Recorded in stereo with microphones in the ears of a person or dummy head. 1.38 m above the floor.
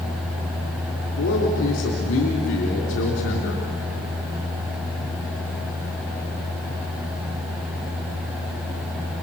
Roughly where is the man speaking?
Left.